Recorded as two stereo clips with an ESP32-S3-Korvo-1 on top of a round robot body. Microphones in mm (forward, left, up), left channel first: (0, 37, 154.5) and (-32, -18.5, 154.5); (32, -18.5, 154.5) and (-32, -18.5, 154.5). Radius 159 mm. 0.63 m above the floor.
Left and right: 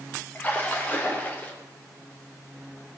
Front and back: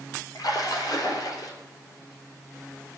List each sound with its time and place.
0.3 s a splash: 5° right, 3 m